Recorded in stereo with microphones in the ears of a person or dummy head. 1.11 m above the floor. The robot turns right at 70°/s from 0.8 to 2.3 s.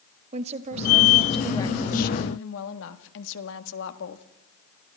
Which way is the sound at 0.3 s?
35° right.